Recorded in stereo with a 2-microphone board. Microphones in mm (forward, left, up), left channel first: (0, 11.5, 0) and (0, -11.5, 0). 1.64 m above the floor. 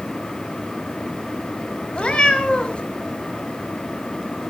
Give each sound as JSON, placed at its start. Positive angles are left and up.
{"t": 1.9, "sound": "a cat meowing", "side_deg": 50, "distance_m": 3.0}